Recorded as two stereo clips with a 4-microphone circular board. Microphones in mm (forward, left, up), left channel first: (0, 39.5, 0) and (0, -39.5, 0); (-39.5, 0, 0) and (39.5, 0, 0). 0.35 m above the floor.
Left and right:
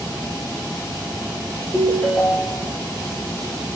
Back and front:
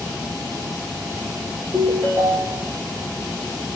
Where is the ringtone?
30° left, 3.5 m.